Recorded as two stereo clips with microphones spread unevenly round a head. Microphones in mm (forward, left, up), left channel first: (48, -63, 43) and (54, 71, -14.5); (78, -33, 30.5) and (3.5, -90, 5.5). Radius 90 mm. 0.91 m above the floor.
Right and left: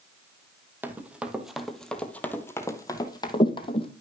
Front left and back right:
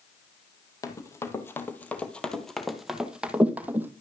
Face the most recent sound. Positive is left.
turn(degrees=-65)